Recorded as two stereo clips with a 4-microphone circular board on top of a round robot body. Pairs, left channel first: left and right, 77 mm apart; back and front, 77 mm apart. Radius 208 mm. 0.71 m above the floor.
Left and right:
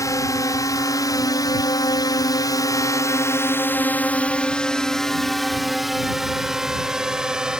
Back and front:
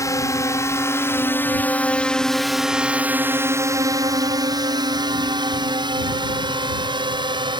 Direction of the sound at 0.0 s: 135° left.